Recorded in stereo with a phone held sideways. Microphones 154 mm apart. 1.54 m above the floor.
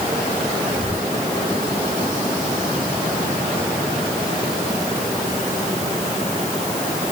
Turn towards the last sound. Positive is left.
turn(degrees=-50)  # may be behind; listen again after turning